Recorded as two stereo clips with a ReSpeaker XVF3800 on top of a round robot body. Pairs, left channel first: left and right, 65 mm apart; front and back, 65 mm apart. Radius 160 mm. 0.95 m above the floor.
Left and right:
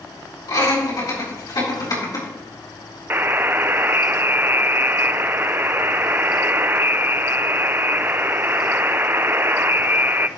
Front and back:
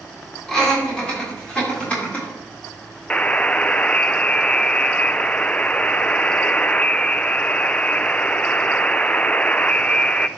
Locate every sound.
0.5 s laughter: 80° left, 4 m; by 2.3 s 65° left, 4 m
3.1 s a buzzer: 60° right, 0.5 m